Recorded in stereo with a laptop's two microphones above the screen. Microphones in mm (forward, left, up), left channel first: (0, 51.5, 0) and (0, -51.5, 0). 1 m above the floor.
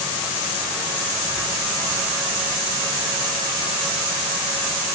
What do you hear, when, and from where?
Only background noise.